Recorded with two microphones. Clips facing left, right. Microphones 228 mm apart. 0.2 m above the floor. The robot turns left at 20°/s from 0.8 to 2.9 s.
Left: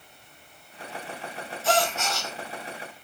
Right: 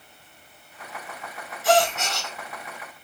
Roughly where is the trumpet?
No trumpet in this recording.